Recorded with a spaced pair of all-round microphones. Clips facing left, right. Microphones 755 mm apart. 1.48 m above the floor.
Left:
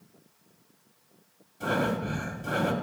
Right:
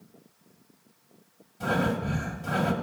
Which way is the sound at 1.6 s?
30° right (ahead or behind).